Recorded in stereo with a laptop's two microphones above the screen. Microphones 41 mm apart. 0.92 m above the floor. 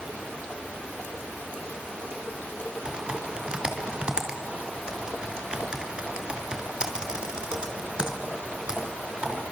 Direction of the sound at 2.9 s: 25° right (ahead or behind).